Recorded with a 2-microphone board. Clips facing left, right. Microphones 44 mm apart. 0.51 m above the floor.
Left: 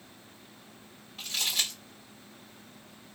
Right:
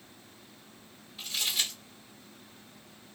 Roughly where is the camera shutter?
No camera shutter in this recording.